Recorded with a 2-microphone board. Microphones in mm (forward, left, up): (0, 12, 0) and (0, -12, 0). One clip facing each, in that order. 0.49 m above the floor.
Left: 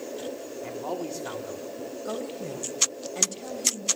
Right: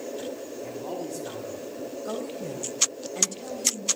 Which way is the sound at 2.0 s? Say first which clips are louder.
Even; centre (ahead or behind).